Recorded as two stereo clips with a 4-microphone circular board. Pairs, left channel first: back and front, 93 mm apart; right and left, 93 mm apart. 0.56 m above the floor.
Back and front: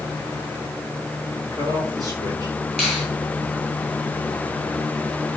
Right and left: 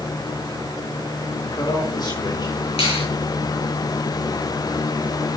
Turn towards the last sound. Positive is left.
turn(degrees=-85)